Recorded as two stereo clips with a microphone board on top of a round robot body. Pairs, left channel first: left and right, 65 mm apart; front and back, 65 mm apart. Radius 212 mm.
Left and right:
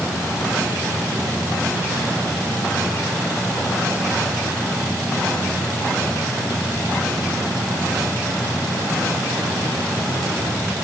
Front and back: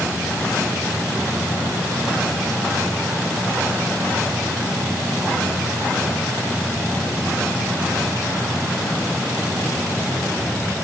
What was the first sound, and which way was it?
Only background noise.